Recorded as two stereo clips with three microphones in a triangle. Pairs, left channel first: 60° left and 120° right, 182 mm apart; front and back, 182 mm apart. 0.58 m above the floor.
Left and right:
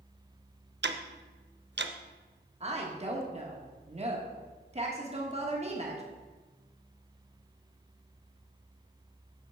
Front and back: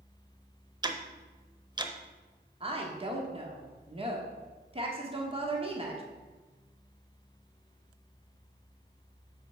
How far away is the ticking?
About 0.5 m.